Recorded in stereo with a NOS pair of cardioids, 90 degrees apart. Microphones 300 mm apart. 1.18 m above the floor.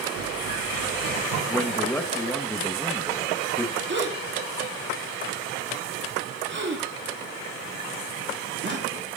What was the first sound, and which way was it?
Running footsteps, 65° right.